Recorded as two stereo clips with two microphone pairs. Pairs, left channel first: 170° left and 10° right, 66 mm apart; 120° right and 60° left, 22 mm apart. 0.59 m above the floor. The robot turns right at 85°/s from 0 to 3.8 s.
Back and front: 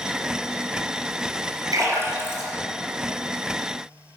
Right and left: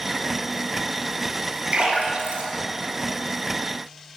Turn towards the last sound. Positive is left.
turn(degrees=-170)